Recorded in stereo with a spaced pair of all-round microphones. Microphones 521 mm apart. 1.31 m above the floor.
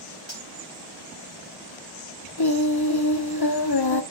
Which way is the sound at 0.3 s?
55° left (ahead or behind).